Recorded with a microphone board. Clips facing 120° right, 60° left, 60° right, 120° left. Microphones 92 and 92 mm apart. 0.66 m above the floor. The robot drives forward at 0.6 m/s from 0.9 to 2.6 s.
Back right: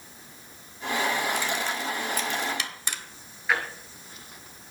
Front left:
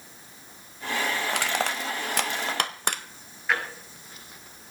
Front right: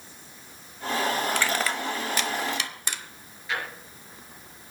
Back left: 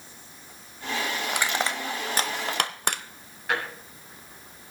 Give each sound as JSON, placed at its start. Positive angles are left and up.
{"t": 1.3, "sound": "crushing", "azimuth_deg": 45, "distance_m": 1.2}
{"t": 3.5, "sound": "a drawer", "azimuth_deg": 150, "distance_m": 3.5}